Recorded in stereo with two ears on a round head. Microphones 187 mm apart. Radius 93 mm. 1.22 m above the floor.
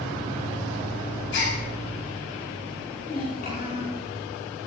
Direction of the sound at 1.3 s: 65° left (ahead or behind).